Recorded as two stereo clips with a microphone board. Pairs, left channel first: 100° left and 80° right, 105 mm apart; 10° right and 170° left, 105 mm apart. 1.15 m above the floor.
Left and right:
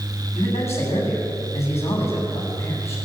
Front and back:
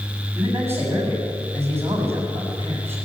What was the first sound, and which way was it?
A man speaking, 100° left.